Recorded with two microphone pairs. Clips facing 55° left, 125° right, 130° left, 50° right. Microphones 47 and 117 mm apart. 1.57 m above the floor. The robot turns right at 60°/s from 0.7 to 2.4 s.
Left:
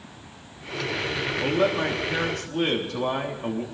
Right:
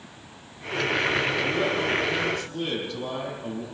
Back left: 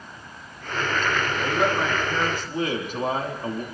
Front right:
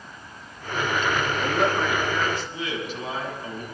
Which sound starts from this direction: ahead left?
A man speaking, at 1.4 s.